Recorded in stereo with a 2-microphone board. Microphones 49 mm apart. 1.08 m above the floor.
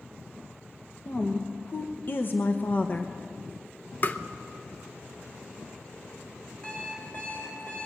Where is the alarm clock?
30° left (ahead or behind), 3.5 m.